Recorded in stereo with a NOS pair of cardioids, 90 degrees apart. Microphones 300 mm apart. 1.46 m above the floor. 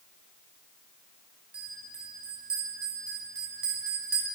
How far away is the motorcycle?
No motorcycle in this recording.